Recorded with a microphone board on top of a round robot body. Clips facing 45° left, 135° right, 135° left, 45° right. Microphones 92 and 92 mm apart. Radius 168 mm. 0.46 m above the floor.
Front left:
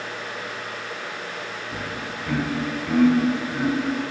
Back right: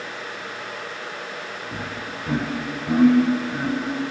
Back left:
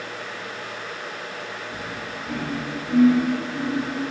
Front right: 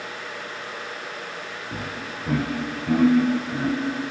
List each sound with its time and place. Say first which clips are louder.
1.7 s laughter: even, even; 75° right, 3 m; by 4.1 s 60° right, 5 m